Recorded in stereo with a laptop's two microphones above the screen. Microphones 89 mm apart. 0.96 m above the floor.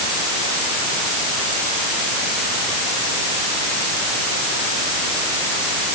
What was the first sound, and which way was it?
Only background noise.